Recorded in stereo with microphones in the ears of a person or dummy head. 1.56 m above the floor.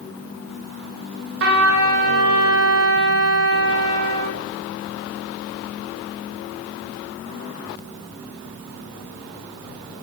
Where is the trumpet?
60° right (ahead or behind), 0.6 m.